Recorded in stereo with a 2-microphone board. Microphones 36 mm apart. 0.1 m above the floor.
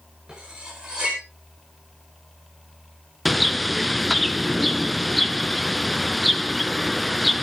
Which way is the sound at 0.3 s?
20° right (ahead or behind).